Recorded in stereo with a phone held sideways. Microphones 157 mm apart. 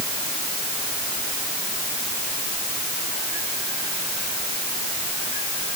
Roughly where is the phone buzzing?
I don't hear a phone buzzing.